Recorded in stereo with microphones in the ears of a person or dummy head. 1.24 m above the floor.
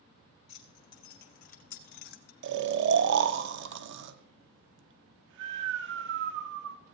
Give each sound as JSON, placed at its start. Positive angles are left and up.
{"t": 0.5, "sound": "keys jangling", "side_deg": 40, "distance_m": 1.6}
{"t": 2.4, "sound": "snoring", "side_deg": -55, "distance_m": 0.5}